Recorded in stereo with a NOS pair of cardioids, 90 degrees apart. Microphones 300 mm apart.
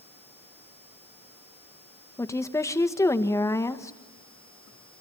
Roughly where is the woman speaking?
Ahead.